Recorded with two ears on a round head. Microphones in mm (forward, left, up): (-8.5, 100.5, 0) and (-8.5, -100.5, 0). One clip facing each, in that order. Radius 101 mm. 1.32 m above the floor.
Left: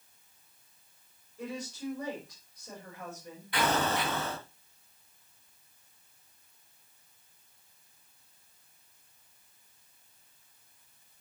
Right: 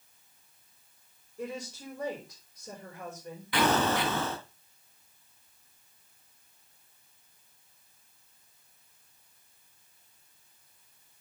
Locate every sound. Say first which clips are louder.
1.4 s a woman speaking: even; 85° right, 5.5 m
3.5 s an explosion: right 3 dB; 55° right (ahead or behind), 3 m